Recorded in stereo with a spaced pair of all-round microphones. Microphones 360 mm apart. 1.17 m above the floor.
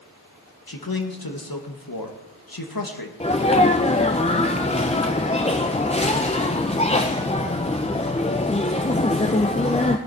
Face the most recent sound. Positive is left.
turn(degrees=15)  # may be behind; listen again after turning